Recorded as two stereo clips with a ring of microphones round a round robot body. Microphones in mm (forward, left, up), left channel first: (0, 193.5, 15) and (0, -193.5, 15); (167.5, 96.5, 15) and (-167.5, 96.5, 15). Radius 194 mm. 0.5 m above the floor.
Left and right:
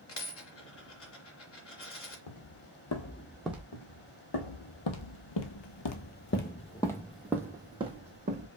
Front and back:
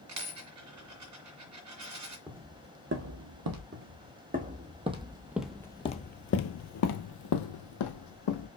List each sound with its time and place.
0.1 s a dropped coin: 145° left, 2.5 m
2.3 s footsteps: 95° left, 1.2 m; by 3.6 s 170° right, 1.0 m
3.7 s footsteps: 120° left, 1.5 m; by 8.5 s 20° right, 1.4 m